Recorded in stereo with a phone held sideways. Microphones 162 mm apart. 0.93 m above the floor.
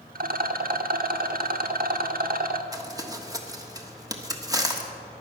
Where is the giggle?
No giggle in this recording.